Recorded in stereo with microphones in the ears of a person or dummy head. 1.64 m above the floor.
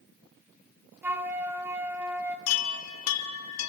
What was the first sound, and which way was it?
A flute, 10° right (ahead or behind).